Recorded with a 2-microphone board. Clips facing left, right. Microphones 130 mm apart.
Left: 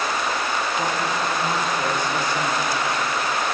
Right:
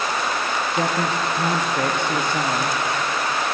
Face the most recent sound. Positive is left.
turn(degrees=-55)  # may be behind; listen again after turning